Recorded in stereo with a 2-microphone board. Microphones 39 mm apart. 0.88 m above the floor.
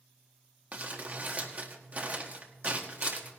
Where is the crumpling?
35° right (ahead or behind), 1.6 m.